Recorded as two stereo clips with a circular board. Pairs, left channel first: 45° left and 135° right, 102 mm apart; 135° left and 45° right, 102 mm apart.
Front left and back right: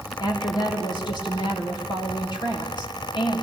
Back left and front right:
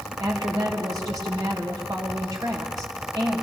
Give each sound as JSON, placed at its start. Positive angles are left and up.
{"t": 0.2, "sound": "a woman speaking", "azimuth_deg": 5, "distance_m": 2.5}